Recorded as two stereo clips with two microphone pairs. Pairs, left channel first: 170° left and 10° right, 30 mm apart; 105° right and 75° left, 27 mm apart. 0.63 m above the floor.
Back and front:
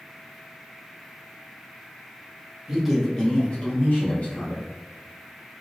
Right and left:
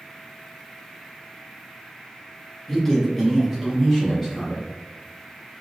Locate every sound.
2.7 s a man speaking: 45° right, 0.8 m; by 4.7 s 175° left, 1.9 m